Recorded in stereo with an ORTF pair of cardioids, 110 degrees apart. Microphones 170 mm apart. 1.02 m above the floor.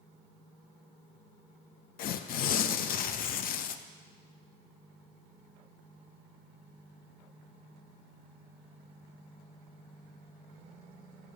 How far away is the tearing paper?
About 0.6 m.